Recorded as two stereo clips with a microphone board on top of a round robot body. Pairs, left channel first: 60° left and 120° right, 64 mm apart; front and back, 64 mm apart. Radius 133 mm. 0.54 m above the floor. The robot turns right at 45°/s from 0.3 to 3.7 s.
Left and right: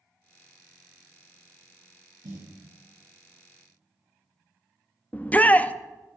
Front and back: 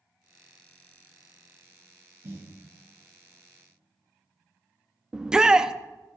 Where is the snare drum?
130° right, 5.5 m; by 2.5 s 120° right, 5.5 m.